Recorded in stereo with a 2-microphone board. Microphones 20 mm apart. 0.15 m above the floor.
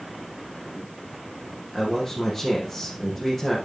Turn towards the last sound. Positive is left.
turn(degrees=0)  # may be behind; listen again after turning